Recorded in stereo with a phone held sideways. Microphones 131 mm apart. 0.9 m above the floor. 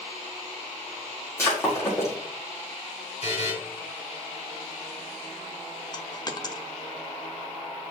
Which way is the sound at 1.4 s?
20° left (ahead or behind).